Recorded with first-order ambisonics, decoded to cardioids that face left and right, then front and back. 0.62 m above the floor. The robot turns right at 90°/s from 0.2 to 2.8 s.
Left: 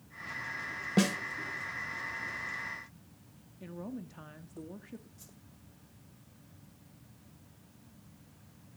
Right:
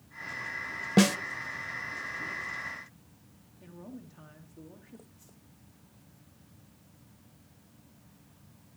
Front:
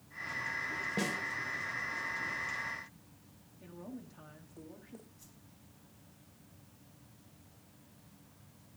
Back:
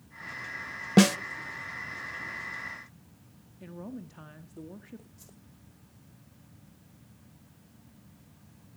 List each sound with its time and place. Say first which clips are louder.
1.0 s a snare drum: right 6 dB, back 15 dB; 160° right, 0.5 m; by 1.2 s 145° right, 0.5 m
3.6 s a woman speaking: left 4 dB, back 5 dB; 140° left, 0.7 m
5.2 s a whoosh: left 2 dB, back 4 dB; 140° left, 2.5 m